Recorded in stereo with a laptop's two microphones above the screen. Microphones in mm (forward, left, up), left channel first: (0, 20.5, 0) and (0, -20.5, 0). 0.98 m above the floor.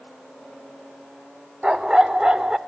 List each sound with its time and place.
1.6 s a dog barking: 20° right (ahead or behind), 0.7 m